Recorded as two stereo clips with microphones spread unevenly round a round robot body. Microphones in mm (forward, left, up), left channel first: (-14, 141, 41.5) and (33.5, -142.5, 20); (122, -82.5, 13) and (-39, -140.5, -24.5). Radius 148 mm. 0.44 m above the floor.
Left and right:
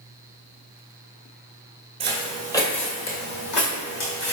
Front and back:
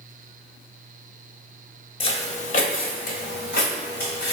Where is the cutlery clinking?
No cutlery clinking in this recording.